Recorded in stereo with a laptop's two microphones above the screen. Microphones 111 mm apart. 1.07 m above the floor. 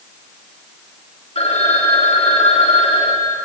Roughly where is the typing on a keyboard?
I don't hear typing on a keyboard.